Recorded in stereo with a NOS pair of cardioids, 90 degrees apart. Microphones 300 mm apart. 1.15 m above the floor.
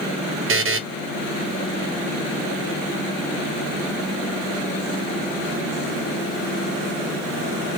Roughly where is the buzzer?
Ahead right.